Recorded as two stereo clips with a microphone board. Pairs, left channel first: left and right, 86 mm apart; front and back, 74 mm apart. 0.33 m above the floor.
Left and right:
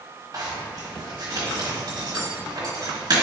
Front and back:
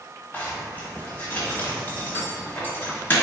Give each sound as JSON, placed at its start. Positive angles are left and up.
{"t": 0.3, "sound": "a zipper", "azimuth_deg": -60, "distance_m": 1.4}